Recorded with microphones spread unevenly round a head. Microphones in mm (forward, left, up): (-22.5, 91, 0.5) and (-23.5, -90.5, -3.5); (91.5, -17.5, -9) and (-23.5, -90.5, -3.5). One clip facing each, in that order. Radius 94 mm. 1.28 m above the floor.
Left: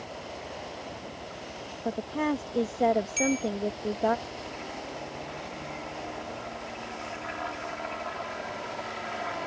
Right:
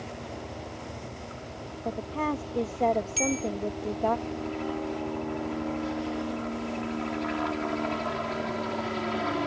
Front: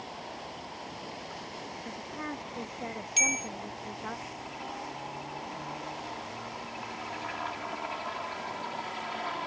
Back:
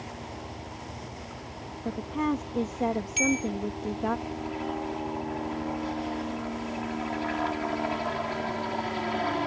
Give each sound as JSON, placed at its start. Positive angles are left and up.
{"t": 0.0, "sound": "a helicopter", "azimuth_deg": -120}
{"t": 1.9, "sound": "a woman speaking", "azimuth_deg": 170}
{"t": 3.2, "sound": "a bell", "azimuth_deg": -15}